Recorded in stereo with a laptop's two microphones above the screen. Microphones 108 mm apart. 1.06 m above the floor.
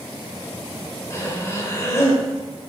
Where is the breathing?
25° left (ahead or behind), 3 m.